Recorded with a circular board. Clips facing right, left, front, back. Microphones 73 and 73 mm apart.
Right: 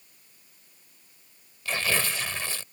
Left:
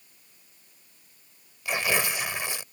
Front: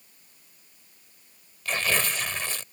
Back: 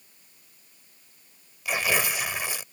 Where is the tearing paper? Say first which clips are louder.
Left 1 dB, back 1 dB; 125° left.